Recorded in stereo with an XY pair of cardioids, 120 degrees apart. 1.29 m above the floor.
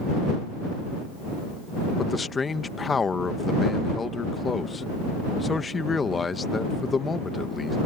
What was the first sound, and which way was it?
A man speaking, 25° left.